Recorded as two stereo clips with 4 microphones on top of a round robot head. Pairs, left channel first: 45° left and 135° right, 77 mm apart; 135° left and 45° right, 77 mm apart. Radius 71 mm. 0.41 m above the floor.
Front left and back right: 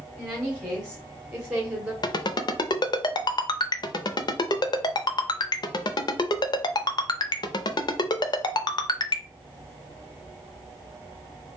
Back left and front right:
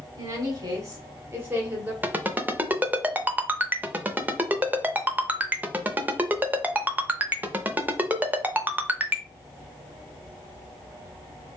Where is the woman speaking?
35° right, 1.7 m; by 1.9 s 85° right, 1.3 m.